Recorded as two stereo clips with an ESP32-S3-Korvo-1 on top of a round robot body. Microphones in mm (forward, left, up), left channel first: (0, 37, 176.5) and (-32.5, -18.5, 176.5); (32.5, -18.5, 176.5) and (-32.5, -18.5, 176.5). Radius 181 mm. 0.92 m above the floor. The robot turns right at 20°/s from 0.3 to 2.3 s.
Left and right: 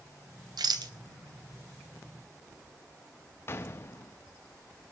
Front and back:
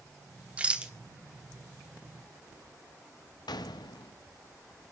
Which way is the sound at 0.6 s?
110° right.